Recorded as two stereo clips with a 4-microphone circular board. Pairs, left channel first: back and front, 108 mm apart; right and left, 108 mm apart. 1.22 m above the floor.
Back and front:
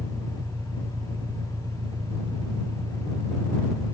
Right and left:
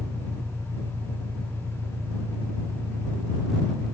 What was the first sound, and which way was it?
An engine running, 25° left.